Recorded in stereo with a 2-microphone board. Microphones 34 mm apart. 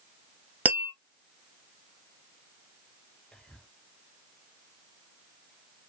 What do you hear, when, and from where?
0.7 s tapping: 60° right (ahead or behind), 1.2 m
3.3 s whispering: 30° left (ahead or behind), 1.4 m